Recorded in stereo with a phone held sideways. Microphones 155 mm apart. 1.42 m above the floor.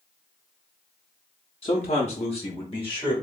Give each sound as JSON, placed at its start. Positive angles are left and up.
{"t": 1.6, "sound": "a man speaking", "side_deg": 40, "distance_m": 0.5}